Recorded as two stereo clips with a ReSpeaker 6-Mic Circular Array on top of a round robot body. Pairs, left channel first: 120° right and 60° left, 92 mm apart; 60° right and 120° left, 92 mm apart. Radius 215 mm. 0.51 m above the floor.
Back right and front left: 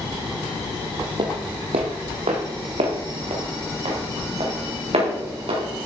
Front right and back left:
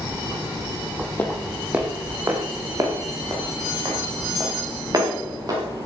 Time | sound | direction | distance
1.2 | footsteps | 15° left | 0.9 m